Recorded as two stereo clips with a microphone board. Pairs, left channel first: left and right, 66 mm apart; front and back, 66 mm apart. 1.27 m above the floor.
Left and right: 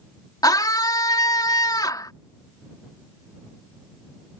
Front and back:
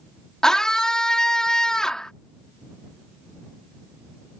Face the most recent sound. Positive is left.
turn(degrees=80)